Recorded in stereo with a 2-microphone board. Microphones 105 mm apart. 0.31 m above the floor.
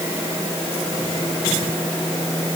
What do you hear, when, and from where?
Only background noise.